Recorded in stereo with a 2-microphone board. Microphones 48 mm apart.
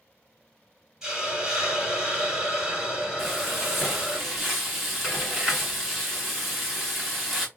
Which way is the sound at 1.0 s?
10° right (ahead or behind).